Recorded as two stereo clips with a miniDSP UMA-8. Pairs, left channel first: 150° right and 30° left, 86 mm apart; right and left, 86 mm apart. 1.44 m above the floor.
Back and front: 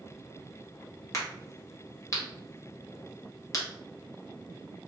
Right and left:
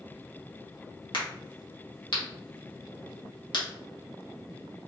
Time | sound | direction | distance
1.1 | a crack | 100° right | 1.4 m